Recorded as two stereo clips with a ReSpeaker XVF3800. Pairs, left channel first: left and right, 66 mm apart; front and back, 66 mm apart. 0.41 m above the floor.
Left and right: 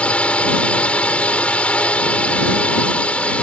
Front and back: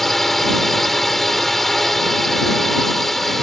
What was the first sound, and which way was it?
A drone, 80° left.